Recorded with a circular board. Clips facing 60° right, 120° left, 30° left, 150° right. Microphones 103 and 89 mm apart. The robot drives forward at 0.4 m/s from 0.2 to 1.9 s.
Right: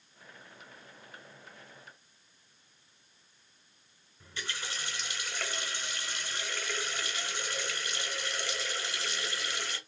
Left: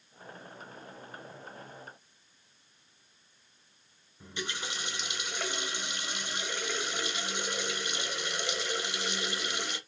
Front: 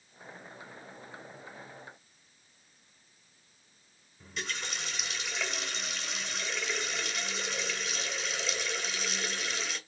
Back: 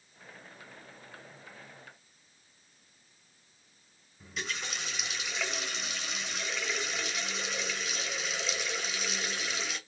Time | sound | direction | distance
4.2 | a running tap | 125° left | 0.6 m